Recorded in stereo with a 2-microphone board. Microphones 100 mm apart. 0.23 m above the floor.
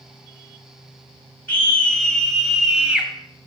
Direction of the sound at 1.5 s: 20° left (ahead or behind).